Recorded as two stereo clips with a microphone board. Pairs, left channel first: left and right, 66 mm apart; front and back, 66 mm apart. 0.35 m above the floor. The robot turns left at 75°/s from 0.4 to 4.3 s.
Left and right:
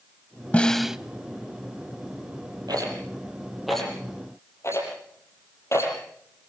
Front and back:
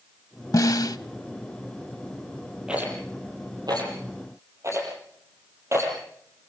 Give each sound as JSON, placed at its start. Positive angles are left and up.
{"t": 0.5, "sound": "a snare drum", "azimuth_deg": 20, "distance_m": 0.7}
{"t": 2.7, "sound": "a rattle", "azimuth_deg": -105, "distance_m": 7.0}